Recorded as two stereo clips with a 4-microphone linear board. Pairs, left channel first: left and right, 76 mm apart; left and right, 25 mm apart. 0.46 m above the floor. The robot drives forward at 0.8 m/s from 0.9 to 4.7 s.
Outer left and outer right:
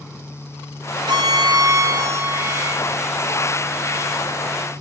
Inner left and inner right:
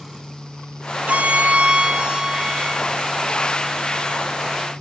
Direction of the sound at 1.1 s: 75° right (ahead or behind).